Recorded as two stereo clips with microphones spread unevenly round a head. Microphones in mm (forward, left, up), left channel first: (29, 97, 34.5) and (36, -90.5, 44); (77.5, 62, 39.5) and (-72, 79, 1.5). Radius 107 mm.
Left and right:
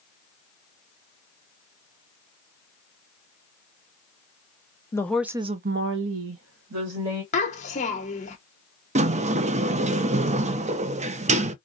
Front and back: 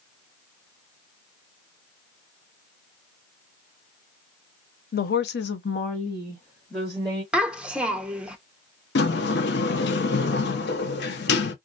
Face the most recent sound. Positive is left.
turn(degrees=-30)